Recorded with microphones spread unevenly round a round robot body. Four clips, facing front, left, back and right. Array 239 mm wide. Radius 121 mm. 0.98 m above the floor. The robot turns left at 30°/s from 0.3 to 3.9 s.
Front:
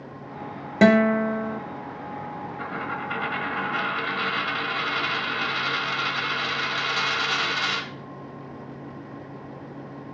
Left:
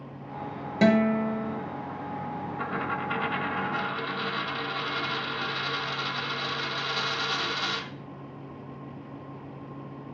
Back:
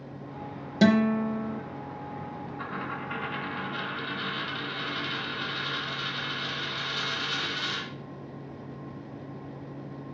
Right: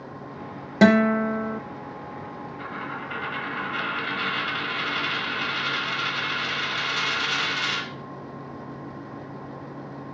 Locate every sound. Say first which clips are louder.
0.8 s a guitar: right 4 dB, front 5 dB; 35° right, 0.8 m; by 1.6 s 60° right, 0.8 m
2.6 s a dropped coin: left 3 dB, front 4 dB; 65° left, 1.1 m; by 7.9 s 25° left, 1.1 m